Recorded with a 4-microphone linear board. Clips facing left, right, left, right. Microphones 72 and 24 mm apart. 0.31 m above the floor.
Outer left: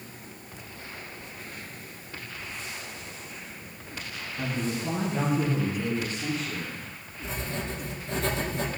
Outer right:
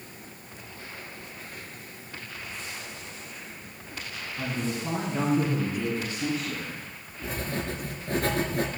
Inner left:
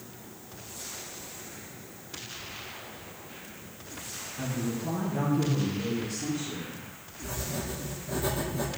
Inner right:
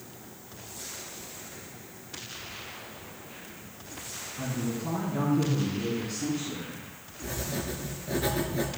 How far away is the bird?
No bird in this recording.